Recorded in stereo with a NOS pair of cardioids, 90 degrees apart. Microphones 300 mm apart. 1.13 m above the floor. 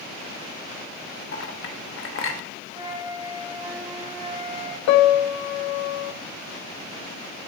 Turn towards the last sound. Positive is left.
turn(degrees=65)